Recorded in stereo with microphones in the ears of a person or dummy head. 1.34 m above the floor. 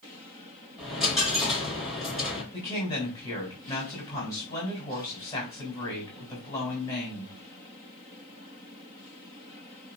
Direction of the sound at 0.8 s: 5° right (ahead or behind).